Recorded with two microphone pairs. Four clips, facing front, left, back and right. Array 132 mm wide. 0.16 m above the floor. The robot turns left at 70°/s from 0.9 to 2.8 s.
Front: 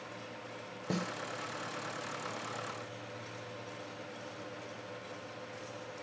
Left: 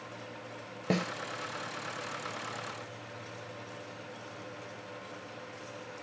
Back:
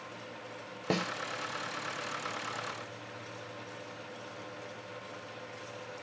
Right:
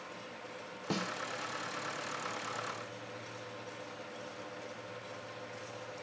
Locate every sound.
0.9 s a snare drum: 145° left, 1.6 m; by 1.1 s 130° left, 1.6 m